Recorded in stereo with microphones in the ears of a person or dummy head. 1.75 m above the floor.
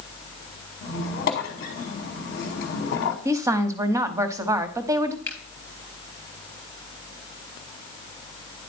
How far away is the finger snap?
About 3 m.